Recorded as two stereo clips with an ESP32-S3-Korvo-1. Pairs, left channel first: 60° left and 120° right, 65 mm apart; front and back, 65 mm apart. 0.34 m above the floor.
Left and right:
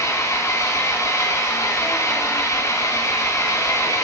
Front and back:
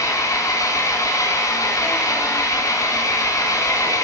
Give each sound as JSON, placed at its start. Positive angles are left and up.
{"t": 0.0, "sound": "an engine running", "azimuth_deg": 25, "distance_m": 2.5}